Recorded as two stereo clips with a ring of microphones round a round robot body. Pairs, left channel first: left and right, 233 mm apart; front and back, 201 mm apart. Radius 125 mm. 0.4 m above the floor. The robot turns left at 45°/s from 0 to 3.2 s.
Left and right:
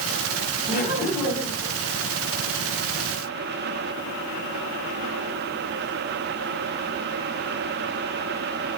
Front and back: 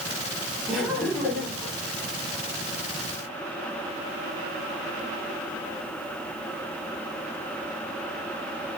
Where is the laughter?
95° left, 1.7 m; by 1.7 s 45° left, 1.7 m.